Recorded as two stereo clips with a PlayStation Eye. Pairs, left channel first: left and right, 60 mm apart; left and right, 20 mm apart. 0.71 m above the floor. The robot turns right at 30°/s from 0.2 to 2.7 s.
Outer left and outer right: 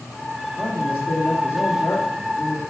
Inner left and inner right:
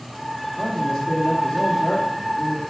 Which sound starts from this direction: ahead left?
A man speaking, at 0.6 s.